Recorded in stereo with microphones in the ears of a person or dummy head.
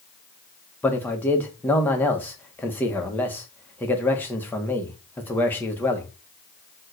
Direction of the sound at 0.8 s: 5° left (ahead or behind).